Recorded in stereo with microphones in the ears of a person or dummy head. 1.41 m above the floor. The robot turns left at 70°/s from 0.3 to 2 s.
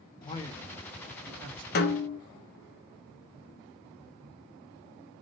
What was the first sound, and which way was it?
A man speaking, 25° left.